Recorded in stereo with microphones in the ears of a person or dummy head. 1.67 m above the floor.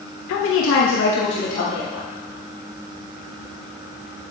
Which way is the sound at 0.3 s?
85° left.